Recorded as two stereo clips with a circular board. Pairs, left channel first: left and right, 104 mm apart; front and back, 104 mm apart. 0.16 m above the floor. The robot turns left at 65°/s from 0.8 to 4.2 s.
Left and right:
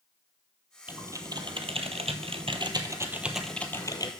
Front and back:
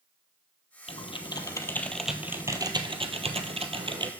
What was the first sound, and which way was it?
Typing on a keyboard, 15° right.